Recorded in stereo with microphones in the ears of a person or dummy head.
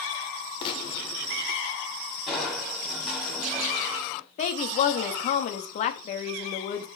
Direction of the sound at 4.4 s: 30° left (ahead or behind).